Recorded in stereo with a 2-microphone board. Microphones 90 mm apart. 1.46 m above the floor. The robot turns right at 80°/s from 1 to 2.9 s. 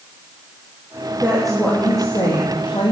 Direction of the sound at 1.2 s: 25° right.